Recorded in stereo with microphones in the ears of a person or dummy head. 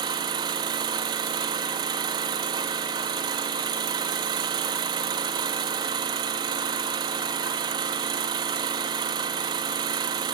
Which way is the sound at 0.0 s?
25° right (ahead or behind).